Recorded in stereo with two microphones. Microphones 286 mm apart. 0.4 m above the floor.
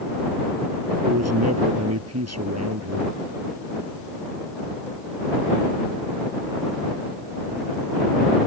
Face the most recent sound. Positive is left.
turn(degrees=-60)  # may be behind; listen again after turning